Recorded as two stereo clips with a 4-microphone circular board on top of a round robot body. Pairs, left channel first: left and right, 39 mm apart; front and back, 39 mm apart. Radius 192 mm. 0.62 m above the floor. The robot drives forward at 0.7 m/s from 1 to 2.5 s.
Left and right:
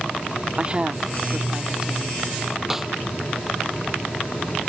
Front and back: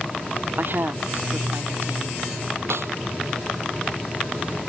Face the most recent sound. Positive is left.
turn(degrees=-170)